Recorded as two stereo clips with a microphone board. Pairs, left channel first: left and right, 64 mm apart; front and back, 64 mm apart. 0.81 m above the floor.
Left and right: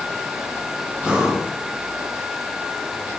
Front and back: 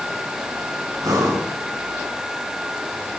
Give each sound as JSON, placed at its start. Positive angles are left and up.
{"t": 1.0, "sound": "breathing", "azimuth_deg": -165, "distance_m": 3.0}